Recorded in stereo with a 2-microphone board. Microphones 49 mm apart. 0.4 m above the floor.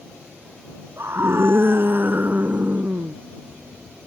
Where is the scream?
60° right (ahead or behind); by 3.1 s 25° right (ahead or behind).